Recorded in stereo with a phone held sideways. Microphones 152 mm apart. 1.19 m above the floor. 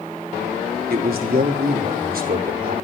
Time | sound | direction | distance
0.9 | a man speaking | 75° right (ahead or behind) | 3 m